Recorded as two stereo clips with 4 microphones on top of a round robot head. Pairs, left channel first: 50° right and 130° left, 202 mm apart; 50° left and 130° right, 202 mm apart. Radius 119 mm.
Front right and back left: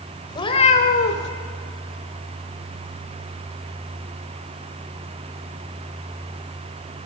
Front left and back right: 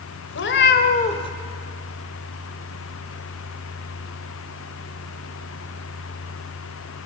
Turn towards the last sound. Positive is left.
turn(degrees=-20)